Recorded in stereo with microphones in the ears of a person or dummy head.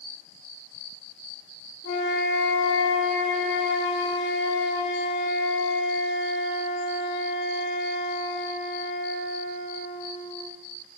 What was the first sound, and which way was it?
A flute, 65° left (ahead or behind).